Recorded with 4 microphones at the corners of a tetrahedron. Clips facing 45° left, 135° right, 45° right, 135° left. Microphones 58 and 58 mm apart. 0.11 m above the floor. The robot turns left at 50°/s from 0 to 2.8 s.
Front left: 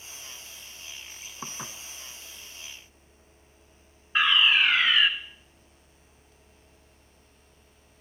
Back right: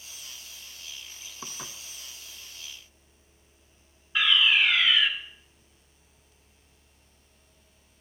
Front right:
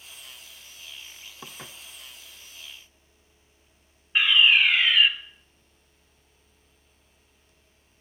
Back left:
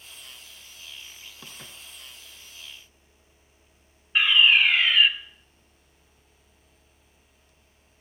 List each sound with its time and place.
1.4 s dishes clattering: straight ahead, 0.8 m; by 1.8 s 15° right, 0.8 m
4.2 s a fire alarm: 40° left, 2.5 m